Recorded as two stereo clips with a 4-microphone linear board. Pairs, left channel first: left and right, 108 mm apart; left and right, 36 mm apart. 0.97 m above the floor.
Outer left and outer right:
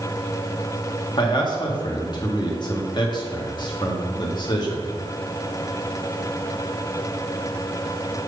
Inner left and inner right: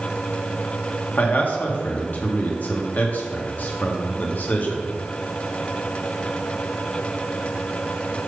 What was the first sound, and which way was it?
A man speaking, 45° left (ahead or behind).